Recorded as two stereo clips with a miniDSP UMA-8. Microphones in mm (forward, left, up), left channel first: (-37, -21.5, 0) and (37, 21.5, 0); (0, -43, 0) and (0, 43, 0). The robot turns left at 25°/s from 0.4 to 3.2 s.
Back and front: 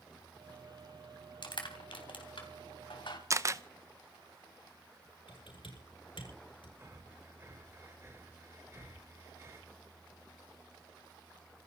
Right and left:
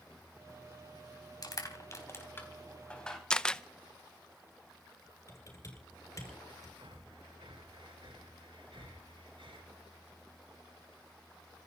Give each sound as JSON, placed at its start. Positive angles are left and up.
{"t": 1.4, "sound": "crushing", "azimuth_deg": -130, "distance_m": 3.5}
{"t": 3.3, "sound": "a camera shutter", "azimuth_deg": -15, "distance_m": 0.8}
{"t": 5.3, "sound": "typing on a keyboard", "azimuth_deg": -140, "distance_m": 7.5}
{"t": 6.8, "sound": "breathing", "azimuth_deg": 85, "distance_m": 5.0}